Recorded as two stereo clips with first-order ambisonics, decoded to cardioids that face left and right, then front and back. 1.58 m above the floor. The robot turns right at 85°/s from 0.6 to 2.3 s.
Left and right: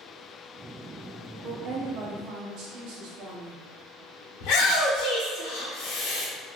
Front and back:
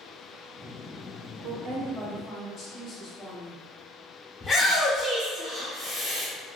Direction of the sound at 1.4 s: 135° right.